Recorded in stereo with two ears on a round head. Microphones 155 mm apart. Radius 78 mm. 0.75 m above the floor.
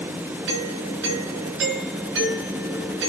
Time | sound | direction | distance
0.5 | a doorbell | 75° right (ahead or behind) | 9.5 m